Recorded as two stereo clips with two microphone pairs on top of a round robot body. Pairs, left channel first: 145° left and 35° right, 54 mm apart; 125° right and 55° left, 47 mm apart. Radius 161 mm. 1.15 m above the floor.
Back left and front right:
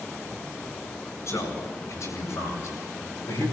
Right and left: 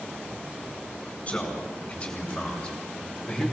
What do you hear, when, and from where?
1.3 s a man speaking: 175° left, 8 m; by 3.5 s 155° left, 6.5 m